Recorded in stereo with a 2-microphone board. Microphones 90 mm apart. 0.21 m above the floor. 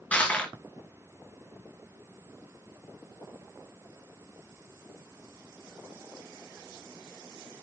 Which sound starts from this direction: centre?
Crushing, at 0.1 s.